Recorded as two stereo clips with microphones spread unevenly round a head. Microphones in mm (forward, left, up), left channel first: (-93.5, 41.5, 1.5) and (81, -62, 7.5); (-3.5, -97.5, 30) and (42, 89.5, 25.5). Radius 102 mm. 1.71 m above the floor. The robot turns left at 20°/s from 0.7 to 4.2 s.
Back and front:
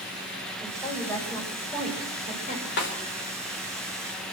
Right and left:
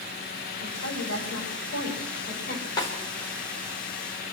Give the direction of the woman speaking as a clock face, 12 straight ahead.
4 o'clock.